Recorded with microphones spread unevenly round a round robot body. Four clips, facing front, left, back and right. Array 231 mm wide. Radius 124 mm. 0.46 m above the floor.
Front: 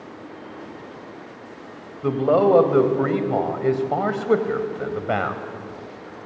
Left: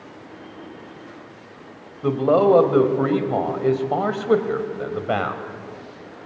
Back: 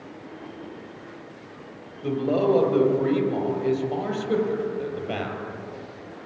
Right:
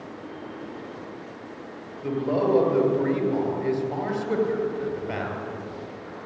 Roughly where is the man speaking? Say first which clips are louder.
Left 7 dB, front 5 dB; ahead left.